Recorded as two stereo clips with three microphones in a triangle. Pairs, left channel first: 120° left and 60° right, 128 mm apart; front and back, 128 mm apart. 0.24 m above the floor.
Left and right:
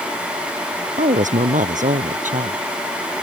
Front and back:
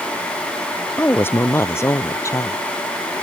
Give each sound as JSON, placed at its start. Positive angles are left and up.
{"t": 1.0, "sound": "a woman speaking", "azimuth_deg": -75}